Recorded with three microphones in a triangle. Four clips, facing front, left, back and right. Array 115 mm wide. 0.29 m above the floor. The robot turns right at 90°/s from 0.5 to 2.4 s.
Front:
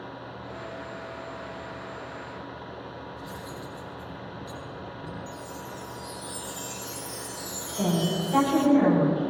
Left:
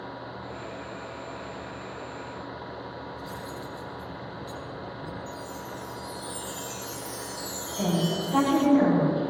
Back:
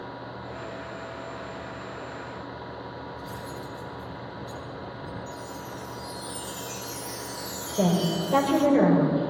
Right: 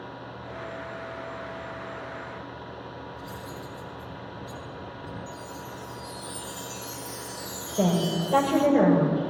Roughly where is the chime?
Behind.